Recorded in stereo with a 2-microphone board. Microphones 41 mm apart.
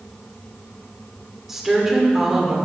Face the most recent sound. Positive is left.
turn(degrees=-5)  # may be behind; listen again after turning